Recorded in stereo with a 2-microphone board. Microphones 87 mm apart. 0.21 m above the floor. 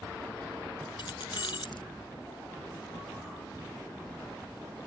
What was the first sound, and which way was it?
Keys jangling, 65° left (ahead or behind).